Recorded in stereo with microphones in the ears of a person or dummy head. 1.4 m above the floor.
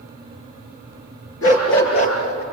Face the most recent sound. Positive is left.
turn(degrees=80)